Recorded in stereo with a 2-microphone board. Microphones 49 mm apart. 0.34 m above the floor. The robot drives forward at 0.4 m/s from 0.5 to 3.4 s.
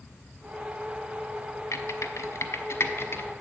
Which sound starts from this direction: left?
Typing on a keyboard, at 1.7 s.